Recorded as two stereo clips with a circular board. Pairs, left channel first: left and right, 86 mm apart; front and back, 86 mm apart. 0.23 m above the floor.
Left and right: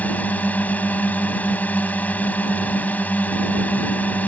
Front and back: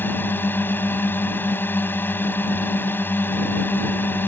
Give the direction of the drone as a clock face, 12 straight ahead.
11 o'clock.